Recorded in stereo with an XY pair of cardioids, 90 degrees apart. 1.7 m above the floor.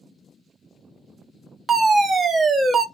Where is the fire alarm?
40° right, 1.1 m.